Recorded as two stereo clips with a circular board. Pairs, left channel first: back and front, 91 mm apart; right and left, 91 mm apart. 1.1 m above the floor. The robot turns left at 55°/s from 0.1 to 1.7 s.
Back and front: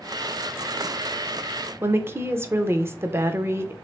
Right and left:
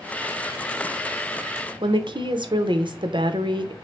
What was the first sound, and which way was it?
A woman speaking, 65° left.